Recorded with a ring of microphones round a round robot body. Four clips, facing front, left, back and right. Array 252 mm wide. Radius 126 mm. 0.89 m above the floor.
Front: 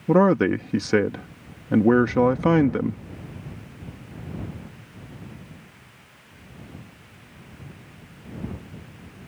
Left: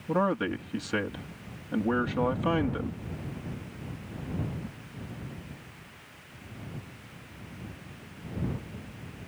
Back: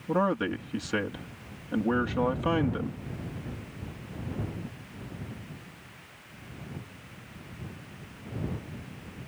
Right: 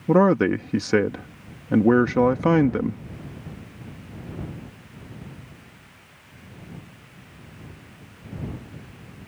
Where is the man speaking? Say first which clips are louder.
Right 10 dB, front 9 dB; 45° right.